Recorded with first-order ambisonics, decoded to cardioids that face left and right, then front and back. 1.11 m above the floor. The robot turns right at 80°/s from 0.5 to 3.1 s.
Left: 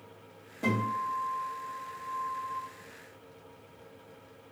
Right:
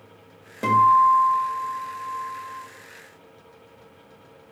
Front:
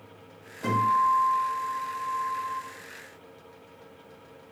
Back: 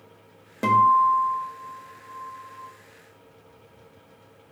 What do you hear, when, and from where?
0.6 s a guitar: 150° right, 1.4 m; by 2.6 s 10° left, 1.4 m